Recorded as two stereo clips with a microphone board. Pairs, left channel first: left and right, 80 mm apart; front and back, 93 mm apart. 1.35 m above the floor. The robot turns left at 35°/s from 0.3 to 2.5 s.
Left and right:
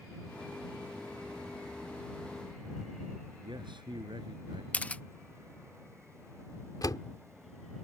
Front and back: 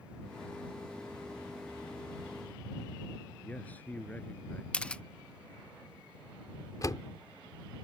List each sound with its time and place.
3.4 s a man speaking: 75° right
4.7 s a camera shutter: 55° left
6.8 s a door slam: 50° left